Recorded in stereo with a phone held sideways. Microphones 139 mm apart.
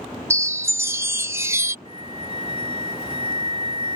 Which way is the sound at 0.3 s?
20° right (ahead or behind).